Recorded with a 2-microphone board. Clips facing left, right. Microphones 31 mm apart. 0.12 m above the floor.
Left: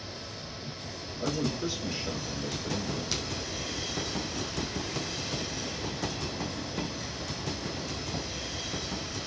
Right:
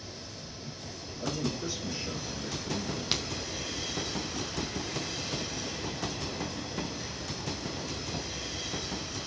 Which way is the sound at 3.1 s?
40° right (ahead or behind).